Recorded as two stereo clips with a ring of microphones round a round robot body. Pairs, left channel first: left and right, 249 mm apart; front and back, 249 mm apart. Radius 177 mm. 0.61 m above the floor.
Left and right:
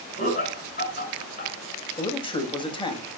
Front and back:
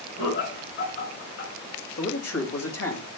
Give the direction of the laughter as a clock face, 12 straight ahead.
11 o'clock.